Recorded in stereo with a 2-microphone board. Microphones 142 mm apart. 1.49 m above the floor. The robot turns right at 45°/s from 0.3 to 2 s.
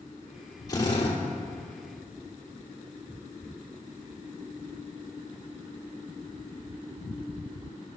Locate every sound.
0.7 s a drill: 30° left (ahead or behind), 2.5 m; by 1.2 s 50° left (ahead or behind), 2.5 m